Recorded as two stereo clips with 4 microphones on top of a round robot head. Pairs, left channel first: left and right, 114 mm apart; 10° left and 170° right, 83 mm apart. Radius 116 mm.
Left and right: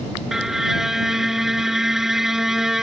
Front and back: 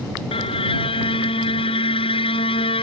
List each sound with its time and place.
0.3 s a violin: 5° right